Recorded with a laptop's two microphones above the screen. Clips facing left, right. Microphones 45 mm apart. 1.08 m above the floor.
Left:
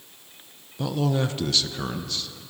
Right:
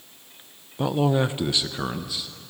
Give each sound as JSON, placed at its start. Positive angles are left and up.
{"t": 0.8, "sound": "a man speaking", "side_deg": -25, "distance_m": 0.7}